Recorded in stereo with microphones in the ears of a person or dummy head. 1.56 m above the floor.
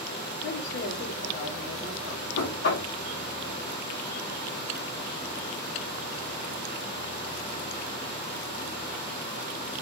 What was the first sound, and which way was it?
A woman speaking, 70° left (ahead or behind).